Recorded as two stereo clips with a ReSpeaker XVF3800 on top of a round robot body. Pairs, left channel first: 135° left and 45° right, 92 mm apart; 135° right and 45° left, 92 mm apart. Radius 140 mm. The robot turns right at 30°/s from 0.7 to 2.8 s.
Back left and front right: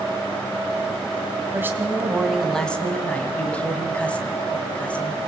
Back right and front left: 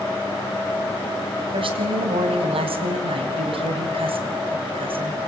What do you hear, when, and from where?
1.5 s a woman speaking: 20° left, 4 m; by 5.2 s 60° left, 4 m